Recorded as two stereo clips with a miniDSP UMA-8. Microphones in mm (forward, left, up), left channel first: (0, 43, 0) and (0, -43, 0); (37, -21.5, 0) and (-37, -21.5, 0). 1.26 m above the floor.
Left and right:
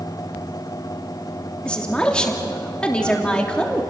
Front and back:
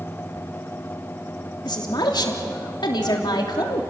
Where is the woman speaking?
10° left, 3 m.